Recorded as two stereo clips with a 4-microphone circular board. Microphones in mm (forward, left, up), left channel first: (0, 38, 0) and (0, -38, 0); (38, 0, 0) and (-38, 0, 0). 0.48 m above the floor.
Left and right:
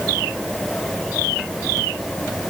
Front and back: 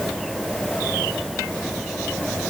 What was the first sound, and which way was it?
Only background noise.